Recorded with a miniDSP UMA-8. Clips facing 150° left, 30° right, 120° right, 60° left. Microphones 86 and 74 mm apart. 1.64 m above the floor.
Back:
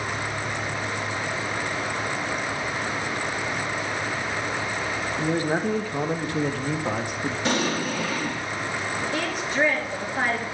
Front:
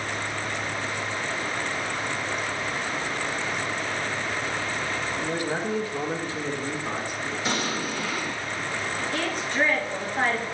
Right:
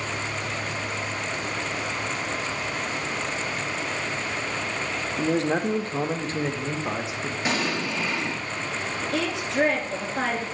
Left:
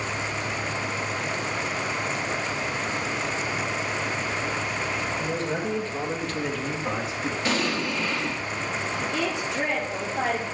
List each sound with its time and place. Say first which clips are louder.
5.2 s a man speaking: back 6 dB, right 4 dB; 145° right, 0.9 m; by 7.3 s 155° left, 1.6 m
7.5 s an explosion: back 4 dB, even; 165° left, 1.6 m
9.1 s a woman speaking: back 1 dB, right 5 dB; 135° right, 3.5 m